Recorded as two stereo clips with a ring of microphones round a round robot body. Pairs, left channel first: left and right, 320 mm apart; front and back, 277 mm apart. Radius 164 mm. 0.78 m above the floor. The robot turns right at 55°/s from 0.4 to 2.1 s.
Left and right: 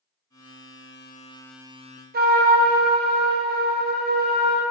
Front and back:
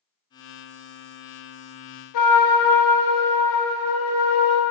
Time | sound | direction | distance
2.1 | a trumpet | 25° right | 0.8 m